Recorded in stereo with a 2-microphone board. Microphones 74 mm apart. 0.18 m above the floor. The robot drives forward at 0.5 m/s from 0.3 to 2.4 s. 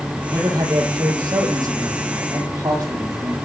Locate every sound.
0.3 s a man speaking: 55° right (ahead or behind), 5.5 m; by 3.4 s 50° right (ahead or behind), 6 m